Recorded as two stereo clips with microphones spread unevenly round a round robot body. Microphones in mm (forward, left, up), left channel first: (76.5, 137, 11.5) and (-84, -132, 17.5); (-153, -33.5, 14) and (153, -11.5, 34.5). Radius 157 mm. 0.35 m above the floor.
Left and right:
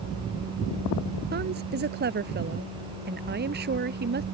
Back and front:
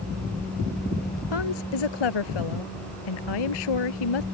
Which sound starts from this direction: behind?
A woman speaking, at 1.3 s.